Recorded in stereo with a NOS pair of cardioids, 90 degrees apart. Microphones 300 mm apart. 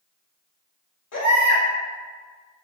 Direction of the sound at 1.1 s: 65° left.